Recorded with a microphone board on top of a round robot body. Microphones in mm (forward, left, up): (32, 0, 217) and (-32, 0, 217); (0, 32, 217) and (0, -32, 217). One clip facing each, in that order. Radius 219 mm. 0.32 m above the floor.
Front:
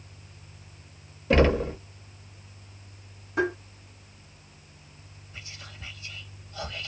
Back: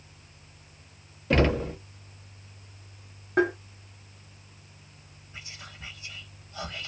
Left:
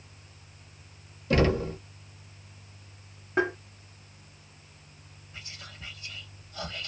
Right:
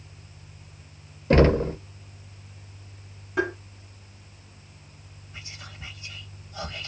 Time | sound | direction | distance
1.3 | knocking | 85° right | 1.0 m
3.4 | tapping | 145° left | 1.8 m
5.3 | whispering | 135° right | 1.2 m